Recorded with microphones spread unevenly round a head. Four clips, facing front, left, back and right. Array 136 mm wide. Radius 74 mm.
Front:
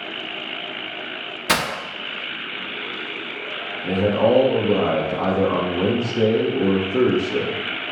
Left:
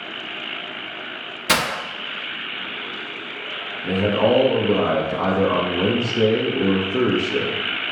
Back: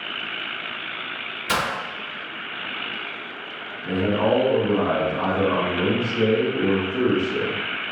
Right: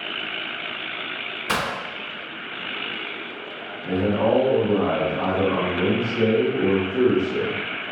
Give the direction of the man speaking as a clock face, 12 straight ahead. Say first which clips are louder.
Left 2 dB, front 3 dB; 12 o'clock.